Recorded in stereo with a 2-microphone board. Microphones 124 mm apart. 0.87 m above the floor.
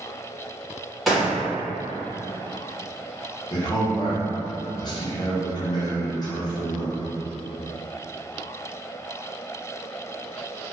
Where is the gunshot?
Centre (ahead or behind), 1.1 m.